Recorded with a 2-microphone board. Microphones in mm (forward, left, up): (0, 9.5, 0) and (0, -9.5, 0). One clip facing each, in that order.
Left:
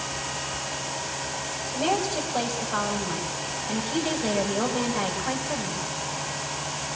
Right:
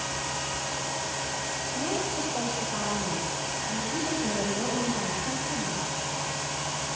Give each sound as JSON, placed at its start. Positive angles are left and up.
{"t": 1.7, "sound": "a woman speaking", "side_deg": 50, "distance_m": 5.5}